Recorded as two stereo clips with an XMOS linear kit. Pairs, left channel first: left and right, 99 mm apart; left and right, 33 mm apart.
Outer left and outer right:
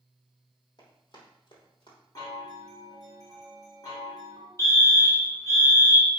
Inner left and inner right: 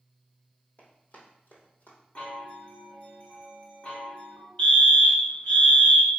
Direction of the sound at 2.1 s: 40° left (ahead or behind).